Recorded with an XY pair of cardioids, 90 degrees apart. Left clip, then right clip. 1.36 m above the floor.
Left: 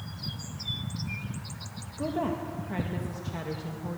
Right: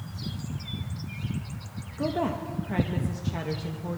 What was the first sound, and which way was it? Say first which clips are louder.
A woman speaking: right 2 dB; 25° right.